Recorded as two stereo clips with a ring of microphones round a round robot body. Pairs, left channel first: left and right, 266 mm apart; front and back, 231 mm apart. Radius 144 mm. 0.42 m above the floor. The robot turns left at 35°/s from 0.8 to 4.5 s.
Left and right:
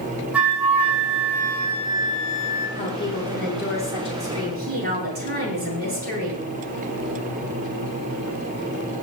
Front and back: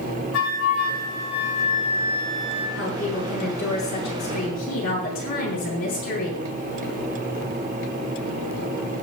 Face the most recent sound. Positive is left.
turn(degrees=-35)